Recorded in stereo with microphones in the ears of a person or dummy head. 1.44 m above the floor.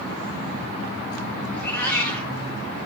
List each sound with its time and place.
1.5 s a cat meowing: 10° left (ahead or behind), 2.0 m